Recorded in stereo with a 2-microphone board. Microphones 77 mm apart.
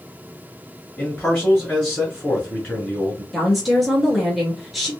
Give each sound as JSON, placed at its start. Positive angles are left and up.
{"t": 1.0, "sound": "a man speaking", "side_deg": 10, "distance_m": 1.2}
{"t": 3.3, "sound": "a woman speaking", "side_deg": 0, "distance_m": 1.4}